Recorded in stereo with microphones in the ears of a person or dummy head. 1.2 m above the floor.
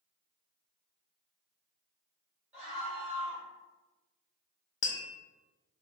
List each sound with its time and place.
2.5 s a scream: 10° right (ahead or behind), 1.4 m
4.8 s tapping: 30° left (ahead or behind), 0.5 m